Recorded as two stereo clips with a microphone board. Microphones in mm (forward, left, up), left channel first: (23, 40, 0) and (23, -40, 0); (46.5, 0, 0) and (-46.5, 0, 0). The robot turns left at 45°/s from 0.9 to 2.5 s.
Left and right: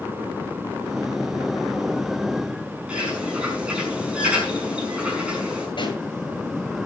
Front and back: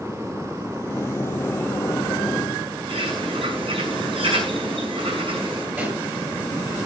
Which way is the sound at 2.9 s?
165° right.